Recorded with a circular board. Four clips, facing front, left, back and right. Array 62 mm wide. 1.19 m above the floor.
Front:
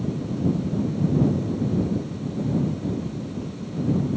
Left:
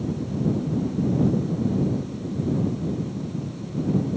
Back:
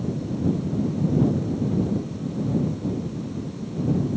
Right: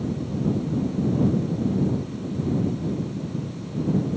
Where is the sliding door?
I don't hear a sliding door.